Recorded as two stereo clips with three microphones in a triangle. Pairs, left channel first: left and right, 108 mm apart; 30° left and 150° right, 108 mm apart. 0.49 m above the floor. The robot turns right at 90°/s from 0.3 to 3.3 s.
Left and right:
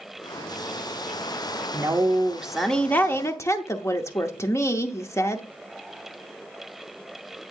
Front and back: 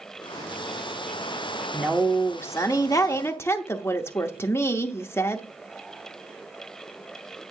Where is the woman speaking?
70° right, 0.7 m; by 5.4 s 70° left, 0.7 m.